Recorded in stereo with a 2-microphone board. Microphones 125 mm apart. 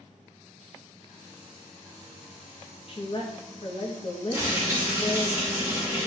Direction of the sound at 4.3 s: 20° right (ahead or behind).